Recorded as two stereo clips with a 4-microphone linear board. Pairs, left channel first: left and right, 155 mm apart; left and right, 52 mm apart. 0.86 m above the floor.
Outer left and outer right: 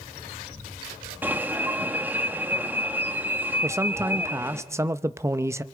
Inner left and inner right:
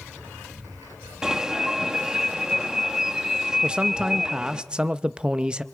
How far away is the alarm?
About 1.1 m.